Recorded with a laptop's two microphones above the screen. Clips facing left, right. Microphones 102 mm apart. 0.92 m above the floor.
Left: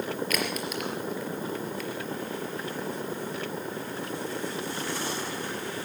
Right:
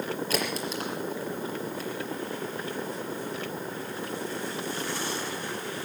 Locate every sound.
0.3 s a crack: 30° right (ahead or behind), 4 m